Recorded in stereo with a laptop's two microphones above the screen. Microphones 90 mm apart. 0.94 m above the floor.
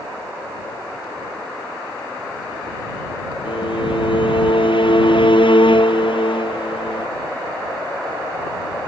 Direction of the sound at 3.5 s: 65° left (ahead or behind).